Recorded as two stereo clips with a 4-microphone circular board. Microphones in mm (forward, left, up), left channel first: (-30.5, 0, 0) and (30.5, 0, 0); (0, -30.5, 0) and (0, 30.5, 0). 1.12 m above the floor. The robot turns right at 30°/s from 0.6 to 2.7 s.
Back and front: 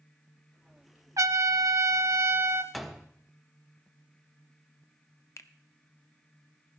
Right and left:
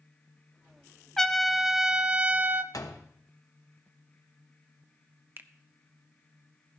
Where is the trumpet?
10° right, 0.7 m; by 2.6 s 35° left, 0.7 m.